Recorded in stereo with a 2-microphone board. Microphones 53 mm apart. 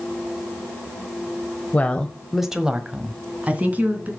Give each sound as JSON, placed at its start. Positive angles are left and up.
{"t": 1.7, "sound": "a woman speaking", "side_deg": 30, "distance_m": 1.0}